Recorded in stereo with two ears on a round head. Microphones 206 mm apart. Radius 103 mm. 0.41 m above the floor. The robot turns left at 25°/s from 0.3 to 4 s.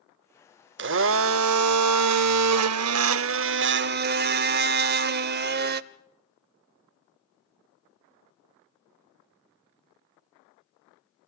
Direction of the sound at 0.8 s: 55° right.